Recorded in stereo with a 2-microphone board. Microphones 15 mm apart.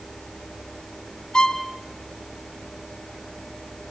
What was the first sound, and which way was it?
A violin, 60° left (ahead or behind).